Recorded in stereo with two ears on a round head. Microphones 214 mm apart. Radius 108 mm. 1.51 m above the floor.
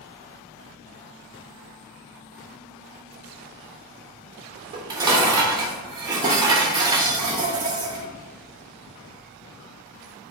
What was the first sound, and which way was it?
Dishes clattering, 20° right (ahead or behind).